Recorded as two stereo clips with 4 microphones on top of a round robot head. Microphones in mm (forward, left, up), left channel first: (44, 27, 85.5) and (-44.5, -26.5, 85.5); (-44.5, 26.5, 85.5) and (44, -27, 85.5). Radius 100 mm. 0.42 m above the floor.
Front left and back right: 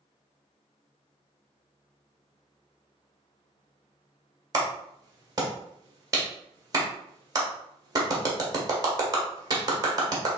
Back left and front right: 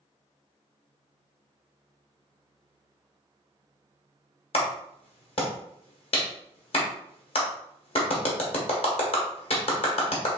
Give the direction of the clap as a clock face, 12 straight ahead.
7 o'clock.